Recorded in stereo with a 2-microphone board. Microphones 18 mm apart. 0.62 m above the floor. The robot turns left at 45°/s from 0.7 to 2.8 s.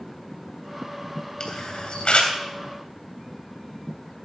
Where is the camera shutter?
40° left (ahead or behind), 3 m; by 2.3 s 75° left (ahead or behind), 3 m.